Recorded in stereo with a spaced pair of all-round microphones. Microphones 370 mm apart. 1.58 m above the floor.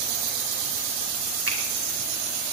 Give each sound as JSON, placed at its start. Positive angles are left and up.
{"t": 1.5, "sound": "a finger snap", "side_deg": -75, "distance_m": 2.0}